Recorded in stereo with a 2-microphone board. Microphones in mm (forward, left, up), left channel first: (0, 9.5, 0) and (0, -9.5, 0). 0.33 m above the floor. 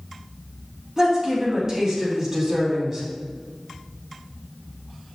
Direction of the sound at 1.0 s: 25° right (ahead or behind).